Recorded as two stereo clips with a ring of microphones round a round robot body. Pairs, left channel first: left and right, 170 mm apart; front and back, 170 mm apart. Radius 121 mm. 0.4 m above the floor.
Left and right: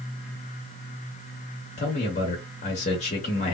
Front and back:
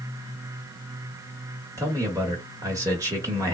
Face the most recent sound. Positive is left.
turn(degrees=115)